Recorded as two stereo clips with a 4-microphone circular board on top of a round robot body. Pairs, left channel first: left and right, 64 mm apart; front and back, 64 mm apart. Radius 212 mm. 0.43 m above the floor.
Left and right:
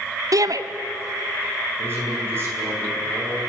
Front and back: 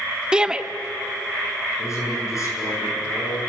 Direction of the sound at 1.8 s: 40° right.